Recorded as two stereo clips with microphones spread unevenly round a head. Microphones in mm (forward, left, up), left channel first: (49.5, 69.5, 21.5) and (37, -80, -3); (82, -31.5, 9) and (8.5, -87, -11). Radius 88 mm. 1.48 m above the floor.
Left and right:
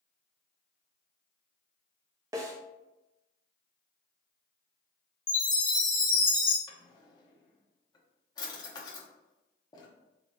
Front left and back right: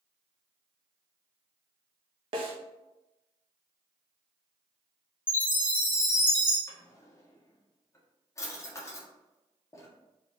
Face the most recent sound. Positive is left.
turn(degrees=50)